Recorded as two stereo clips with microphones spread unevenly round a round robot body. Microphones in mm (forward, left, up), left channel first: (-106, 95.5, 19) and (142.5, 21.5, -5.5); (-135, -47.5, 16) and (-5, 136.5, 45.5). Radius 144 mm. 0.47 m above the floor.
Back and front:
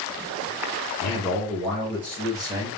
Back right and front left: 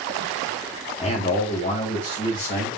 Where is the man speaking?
135° right, 1.0 m; by 2.7 s 80° right, 1.5 m.